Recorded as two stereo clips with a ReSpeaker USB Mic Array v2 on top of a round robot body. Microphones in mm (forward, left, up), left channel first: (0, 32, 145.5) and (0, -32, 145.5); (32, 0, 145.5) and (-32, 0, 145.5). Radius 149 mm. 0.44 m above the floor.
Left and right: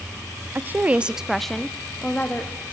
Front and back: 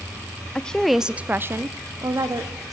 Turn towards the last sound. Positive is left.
turn(degrees=155)